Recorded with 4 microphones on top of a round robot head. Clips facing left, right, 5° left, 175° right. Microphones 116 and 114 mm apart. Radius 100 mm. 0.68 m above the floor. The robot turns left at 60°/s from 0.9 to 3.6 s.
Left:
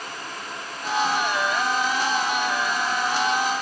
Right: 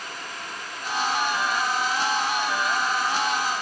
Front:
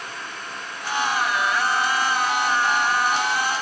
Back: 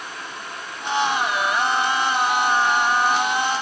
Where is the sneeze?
No sneeze in this recording.